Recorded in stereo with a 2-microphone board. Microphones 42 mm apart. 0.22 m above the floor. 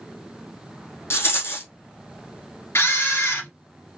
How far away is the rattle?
About 1.3 m.